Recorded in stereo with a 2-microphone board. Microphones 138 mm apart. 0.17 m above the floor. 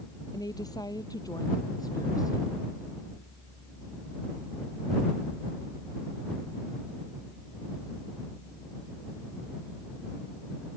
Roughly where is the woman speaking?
Left.